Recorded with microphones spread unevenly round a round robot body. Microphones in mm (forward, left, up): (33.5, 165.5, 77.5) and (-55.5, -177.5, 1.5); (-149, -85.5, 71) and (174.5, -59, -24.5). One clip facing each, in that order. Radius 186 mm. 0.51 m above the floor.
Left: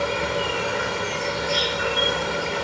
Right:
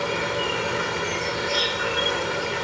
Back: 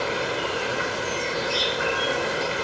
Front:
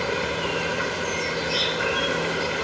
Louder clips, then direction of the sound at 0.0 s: Left 1 dB, front 1 dB; 85° left.